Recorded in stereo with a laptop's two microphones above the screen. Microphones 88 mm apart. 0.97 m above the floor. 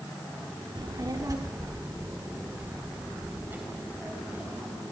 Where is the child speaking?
55° right (ahead or behind), 1.3 m; by 4.8 s 20° right (ahead or behind), 4 m.